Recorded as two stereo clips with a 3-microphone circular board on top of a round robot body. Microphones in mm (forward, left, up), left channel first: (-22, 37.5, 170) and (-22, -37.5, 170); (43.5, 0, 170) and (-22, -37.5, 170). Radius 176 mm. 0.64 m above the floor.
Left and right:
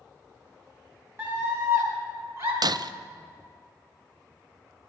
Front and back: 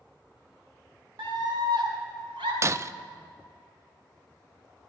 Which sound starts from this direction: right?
Breaking glass, at 2.6 s.